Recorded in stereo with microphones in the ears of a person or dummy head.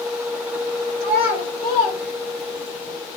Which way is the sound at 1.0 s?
20° right (ahead or behind).